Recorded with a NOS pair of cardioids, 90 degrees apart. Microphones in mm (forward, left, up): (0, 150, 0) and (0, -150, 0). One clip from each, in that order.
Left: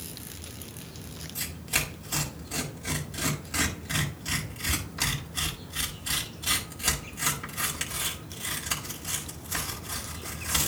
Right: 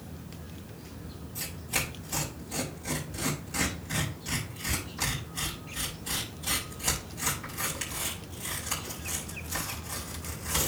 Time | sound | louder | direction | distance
1.4 | tearing paper | left 2 dB | 45° left | 5.5 m